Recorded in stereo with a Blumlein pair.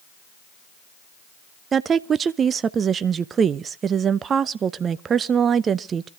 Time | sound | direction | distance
1.7 | a woman speaking | 20° right | 0.6 m